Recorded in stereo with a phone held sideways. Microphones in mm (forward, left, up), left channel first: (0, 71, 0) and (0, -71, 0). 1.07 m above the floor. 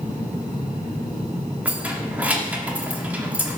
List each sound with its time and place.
1.6 s keys jangling: 10° right (ahead or behind), 1.6 m